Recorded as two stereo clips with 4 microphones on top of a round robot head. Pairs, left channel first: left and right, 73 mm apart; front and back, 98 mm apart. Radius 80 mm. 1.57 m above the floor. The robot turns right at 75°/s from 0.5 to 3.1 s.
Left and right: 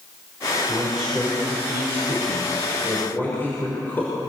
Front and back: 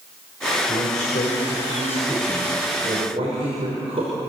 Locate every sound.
0.6 s a man speaking: 35° right, 5 m; by 4.1 s 150° left, 5 m